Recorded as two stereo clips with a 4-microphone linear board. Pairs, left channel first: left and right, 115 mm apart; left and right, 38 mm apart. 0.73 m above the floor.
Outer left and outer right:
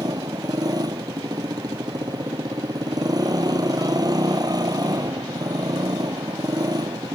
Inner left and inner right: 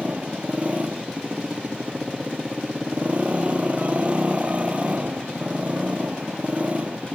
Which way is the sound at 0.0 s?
35° right (ahead or behind).